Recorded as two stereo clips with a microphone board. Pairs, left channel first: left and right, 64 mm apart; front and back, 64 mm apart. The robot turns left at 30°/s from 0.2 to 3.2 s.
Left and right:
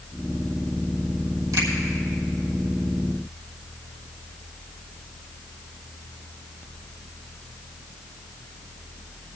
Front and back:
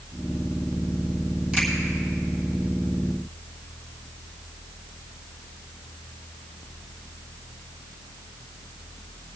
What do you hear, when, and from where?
1.5 s a finger snap: 105° right, 3 m